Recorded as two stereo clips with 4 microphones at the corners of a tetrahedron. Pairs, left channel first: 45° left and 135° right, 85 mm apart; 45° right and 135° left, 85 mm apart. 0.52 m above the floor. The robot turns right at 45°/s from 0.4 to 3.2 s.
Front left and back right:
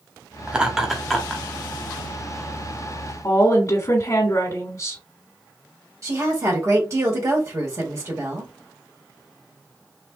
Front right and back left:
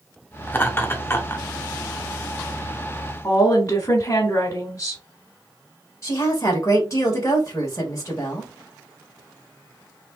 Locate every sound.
0.5 s laughter: 75° right, 1.0 m; by 1.4 s 30° right, 1.0 m
3.2 s a woman speaking: 5° left, 1.4 m
6.0 s a woman speaking: 90° right, 1.8 m